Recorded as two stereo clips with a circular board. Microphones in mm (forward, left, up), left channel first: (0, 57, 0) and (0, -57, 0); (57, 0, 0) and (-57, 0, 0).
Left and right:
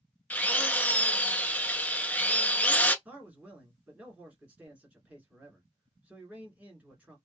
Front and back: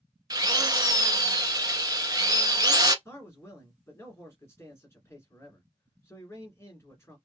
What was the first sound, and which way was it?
A drill, 160° left.